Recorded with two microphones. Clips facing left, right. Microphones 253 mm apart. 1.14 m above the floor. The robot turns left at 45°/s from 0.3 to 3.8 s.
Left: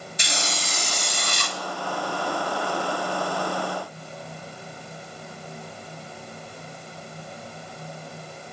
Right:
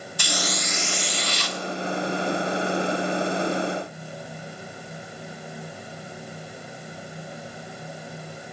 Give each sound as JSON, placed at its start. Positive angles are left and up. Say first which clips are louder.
{"t": 0.2, "sound": "a hiss", "louder": "right 4 dB", "azimuth_deg": 150, "distance_m": 0.6}